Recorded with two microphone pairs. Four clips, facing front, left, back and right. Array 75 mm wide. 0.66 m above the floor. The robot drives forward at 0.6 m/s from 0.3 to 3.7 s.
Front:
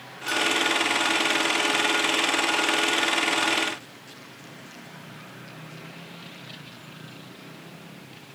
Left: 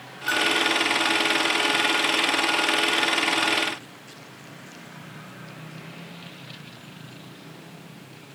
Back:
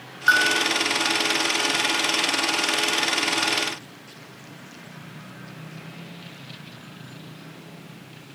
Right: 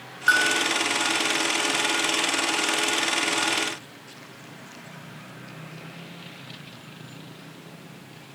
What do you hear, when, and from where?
0.3 s a bell: 150° right